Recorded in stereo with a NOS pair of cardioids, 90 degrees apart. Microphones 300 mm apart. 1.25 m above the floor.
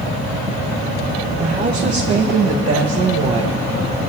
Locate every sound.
1.4 s a woman speaking: 30° right, 2.5 m; by 3.6 s 75° right, 1.5 m